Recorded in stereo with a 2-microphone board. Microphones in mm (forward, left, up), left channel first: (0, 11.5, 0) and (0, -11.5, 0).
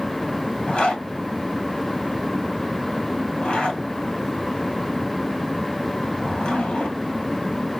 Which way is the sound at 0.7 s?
50° left (ahead or behind).